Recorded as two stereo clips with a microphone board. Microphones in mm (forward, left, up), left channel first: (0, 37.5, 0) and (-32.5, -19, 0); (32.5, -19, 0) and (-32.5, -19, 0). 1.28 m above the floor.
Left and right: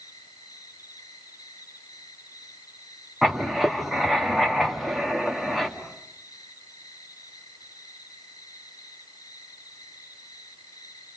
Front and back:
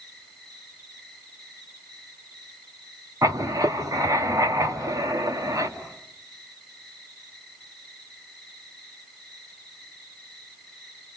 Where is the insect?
80° left, 8 m.